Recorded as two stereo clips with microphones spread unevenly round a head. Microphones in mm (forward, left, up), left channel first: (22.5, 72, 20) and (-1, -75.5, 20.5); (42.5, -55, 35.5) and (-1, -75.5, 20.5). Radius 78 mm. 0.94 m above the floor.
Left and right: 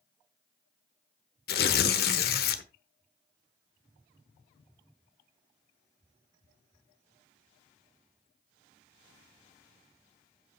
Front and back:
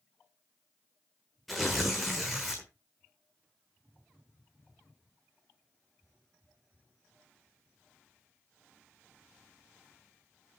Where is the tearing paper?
110° left, 1.1 m.